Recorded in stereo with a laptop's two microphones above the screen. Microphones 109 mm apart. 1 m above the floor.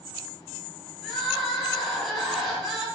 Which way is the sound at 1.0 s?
Centre (ahead or behind).